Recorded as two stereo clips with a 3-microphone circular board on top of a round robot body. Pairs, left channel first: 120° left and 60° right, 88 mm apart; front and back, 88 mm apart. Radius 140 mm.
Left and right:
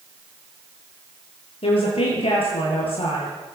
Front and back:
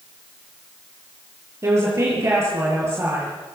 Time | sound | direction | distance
1.6 | a woman speaking | 120° left | 9.5 m